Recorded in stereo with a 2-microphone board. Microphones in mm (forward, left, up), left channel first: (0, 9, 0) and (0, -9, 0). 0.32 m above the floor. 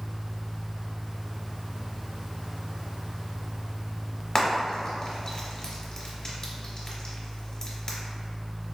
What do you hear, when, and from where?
4.3 s frying: 30° left (ahead or behind), 0.9 m